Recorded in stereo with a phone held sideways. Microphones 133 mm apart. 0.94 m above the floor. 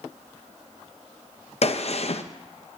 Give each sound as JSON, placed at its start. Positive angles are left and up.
{"t": 1.6, "sound": "a gunshot", "side_deg": 55, "distance_m": 0.6}